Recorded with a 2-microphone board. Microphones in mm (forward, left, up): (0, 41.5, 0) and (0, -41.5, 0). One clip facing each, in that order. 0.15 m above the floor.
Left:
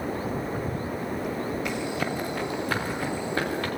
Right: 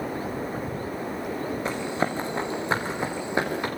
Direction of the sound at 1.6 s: 30° right (ahead or behind).